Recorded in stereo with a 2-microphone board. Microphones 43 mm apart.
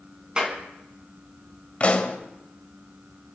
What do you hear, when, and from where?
0.4 s a clap: 25° right (ahead or behind), 3.5 m
1.8 s a pop: 30° left (ahead or behind), 1.9 m